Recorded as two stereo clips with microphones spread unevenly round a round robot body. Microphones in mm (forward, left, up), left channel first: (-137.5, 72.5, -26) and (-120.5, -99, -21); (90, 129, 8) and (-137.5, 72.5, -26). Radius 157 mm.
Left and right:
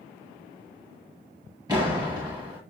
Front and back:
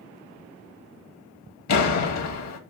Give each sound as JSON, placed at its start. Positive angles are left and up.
{"t": 1.7, "sound": "a door slam", "azimuth_deg": -5, "distance_m": 1.4}